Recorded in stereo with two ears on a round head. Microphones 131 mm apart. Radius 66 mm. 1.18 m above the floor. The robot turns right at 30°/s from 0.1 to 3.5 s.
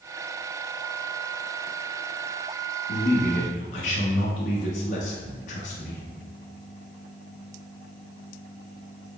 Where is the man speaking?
70° left (ahead or behind), 0.6 m; by 6.0 s 55° left (ahead or behind), 0.6 m.